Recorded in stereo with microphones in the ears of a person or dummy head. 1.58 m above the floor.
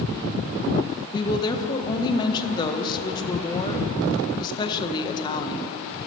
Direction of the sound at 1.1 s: 25° left (ahead or behind).